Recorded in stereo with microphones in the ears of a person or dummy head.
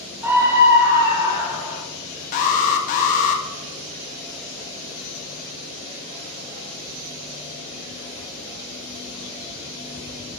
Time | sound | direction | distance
0.2 | a scream | 10° right (ahead or behind) | 0.9 m
2.3 | an alarm | 45° left (ahead or behind) | 1.4 m